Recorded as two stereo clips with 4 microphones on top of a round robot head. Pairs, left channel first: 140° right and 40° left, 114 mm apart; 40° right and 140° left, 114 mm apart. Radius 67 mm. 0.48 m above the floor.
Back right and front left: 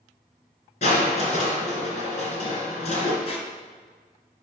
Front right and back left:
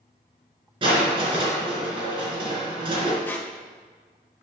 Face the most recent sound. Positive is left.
turn(degrees=-115)